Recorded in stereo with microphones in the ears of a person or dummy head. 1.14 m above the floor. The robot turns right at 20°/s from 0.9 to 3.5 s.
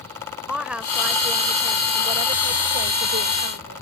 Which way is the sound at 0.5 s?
175° right.